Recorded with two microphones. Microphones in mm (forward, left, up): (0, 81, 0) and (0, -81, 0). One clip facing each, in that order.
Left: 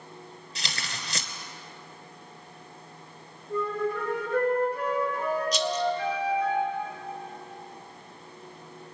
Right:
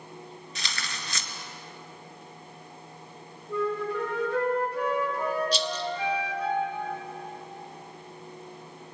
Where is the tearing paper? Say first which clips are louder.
Left 2 dB; 35° left (ahead or behind), 1.0 m.